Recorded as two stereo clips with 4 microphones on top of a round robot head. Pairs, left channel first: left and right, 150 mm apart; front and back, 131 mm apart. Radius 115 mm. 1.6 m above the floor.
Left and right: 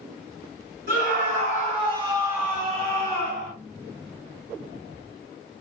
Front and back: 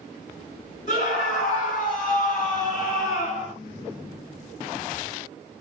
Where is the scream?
50° right, 1.3 m; by 3.5 s 40° left, 0.8 m.